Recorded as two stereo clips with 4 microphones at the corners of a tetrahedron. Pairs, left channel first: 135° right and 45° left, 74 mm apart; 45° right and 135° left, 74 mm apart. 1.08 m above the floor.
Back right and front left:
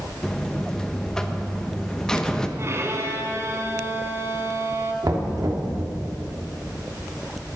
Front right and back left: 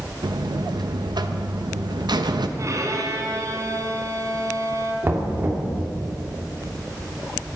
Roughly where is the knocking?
Left.